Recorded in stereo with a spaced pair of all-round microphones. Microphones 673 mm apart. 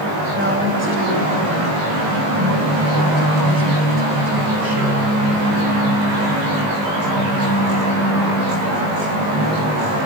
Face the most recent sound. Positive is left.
turn(degrees=-35)  # may be behind; listen again after turning